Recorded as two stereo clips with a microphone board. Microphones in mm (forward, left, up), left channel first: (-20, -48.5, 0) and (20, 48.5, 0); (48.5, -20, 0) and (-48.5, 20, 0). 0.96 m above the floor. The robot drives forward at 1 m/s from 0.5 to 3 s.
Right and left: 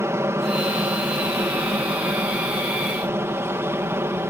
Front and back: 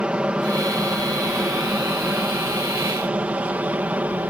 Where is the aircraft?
90° left; by 4.3 s 100° left.